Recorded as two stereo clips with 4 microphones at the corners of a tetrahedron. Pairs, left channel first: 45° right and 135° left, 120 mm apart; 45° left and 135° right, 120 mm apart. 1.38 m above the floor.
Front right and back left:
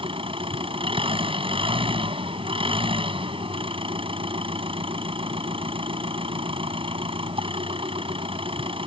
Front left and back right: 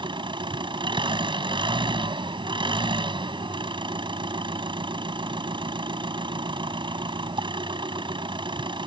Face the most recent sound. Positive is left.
turn(degrees=175)